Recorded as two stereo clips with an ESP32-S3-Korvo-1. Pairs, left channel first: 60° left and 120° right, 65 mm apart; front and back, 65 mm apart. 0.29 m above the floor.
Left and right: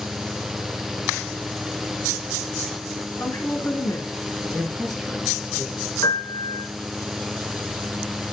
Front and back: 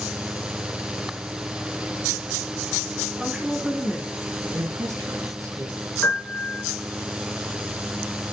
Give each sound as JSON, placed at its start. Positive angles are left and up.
{"t": 3.1, "sound": "a woman speaking", "azimuth_deg": 105, "distance_m": 3.5}
{"t": 4.5, "sound": "a man speaking", "azimuth_deg": 150, "distance_m": 3.5}
{"t": 6.0, "sound": "a piano", "azimuth_deg": 55, "distance_m": 3.5}